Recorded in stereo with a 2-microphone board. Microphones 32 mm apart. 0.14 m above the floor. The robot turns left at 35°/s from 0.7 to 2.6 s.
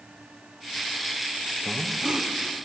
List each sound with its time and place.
1.6 s breathing: 10° right (ahead or behind), 2.5 m; by 2.3 s 30° right (ahead or behind), 2.5 m